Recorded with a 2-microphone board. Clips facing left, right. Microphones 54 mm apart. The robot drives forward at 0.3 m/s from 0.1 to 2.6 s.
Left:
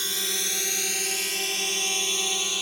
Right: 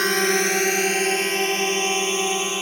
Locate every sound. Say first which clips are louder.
0.0 s a drone: right 13 dB; 55° right (ahead or behind); by 2.6 s 30° right (ahead or behind)